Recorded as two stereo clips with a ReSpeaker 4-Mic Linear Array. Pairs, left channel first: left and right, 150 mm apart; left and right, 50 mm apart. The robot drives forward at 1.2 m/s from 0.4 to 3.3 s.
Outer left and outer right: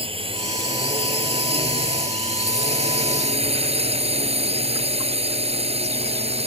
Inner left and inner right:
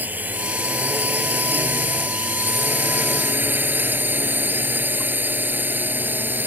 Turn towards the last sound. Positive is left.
turn(degrees=-40)  # may be behind; listen again after turning